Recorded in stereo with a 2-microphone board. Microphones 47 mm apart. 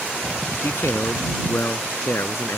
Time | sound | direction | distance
0.5 | a man speaking | 65° left (ahead or behind) | ?